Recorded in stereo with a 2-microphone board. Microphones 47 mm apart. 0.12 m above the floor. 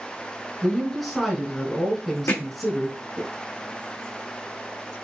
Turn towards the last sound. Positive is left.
turn(degrees=85)